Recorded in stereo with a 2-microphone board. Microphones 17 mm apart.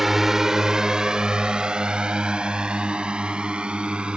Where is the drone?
15° right (ahead or behind); by 4.2 s 75° right (ahead or behind).